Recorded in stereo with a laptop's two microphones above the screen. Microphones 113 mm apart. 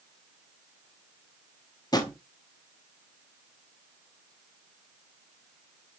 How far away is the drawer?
About 0.7 m.